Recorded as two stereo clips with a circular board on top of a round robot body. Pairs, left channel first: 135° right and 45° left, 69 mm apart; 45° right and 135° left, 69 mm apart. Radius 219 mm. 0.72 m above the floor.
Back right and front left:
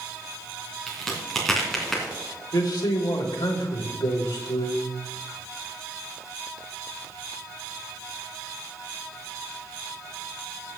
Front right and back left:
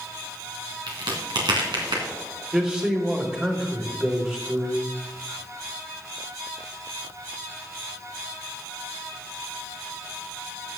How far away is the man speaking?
About 3 m.